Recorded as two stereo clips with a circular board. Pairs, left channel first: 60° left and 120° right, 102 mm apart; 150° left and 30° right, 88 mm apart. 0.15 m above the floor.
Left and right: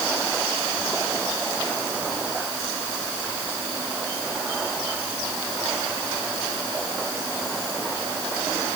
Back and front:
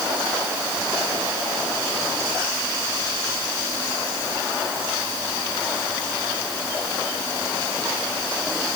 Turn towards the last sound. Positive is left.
No sound to turn to.